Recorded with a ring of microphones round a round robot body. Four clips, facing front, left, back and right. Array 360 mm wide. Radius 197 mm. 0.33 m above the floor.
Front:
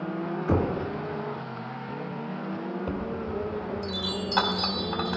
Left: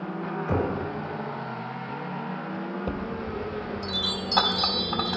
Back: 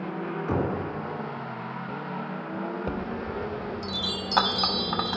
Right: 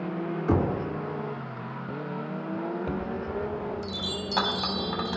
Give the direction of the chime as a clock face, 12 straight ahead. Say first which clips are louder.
Even, even; 6 o'clock.